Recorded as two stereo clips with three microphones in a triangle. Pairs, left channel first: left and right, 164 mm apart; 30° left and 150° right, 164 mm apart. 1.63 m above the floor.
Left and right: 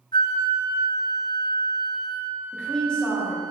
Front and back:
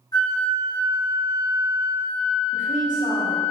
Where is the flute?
70° left, 0.8 m.